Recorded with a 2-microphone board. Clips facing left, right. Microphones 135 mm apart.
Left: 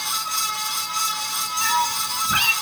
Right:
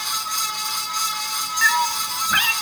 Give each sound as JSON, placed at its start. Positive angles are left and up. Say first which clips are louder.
{"t": 1.6, "sound": "a cat meowing", "louder": "right 1 dB", "side_deg": 25, "distance_m": 1.2}